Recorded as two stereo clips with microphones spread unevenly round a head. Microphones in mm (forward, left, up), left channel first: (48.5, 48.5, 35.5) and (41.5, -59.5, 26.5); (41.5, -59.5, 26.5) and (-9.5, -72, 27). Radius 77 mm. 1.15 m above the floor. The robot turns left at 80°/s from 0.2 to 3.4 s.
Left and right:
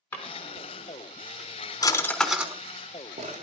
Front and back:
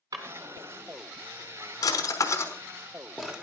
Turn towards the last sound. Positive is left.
turn(degrees=-95)